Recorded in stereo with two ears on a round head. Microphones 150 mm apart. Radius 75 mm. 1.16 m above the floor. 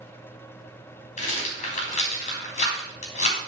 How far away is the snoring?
No snoring in this recording.